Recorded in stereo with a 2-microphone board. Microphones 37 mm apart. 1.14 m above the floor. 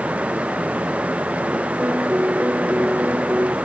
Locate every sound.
1.8 s a piano: 50° right (ahead or behind)